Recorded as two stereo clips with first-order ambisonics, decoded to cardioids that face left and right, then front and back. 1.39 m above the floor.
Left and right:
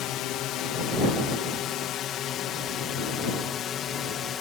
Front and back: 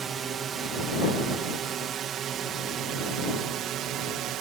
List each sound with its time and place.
0.0 s a drone: 120° left; by 4.4 s 145° left